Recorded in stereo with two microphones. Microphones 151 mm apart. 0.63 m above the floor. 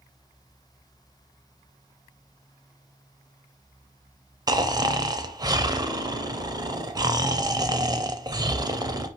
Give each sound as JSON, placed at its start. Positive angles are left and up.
{"t": 4.5, "sound": "snoring", "side_deg": -25, "distance_m": 0.6}